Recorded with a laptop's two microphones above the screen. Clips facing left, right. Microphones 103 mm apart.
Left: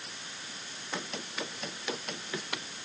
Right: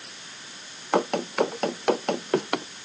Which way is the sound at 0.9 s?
60° right (ahead or behind).